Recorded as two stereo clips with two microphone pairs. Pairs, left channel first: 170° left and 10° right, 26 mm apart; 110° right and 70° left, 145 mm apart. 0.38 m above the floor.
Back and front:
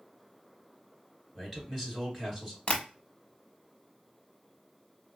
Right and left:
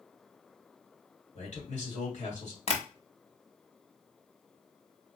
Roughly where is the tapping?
Behind right.